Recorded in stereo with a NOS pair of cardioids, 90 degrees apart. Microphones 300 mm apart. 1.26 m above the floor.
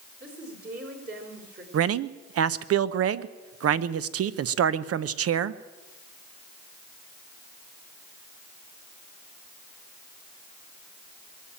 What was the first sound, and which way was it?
A woman speaking, 35° right.